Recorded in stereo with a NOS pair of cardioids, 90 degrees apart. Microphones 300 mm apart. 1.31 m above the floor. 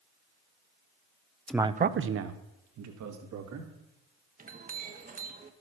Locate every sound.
1.5 s a man speaking: 5° left, 0.6 m; by 3.7 s 70° right, 3 m
4.4 s a clink: 30° right, 1.3 m